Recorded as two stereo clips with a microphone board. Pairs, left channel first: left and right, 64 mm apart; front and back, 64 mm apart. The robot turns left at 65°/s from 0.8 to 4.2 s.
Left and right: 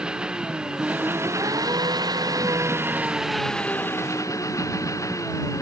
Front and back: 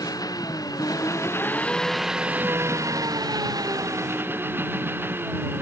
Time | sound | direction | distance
0.0 | an engine running | 15° right | ?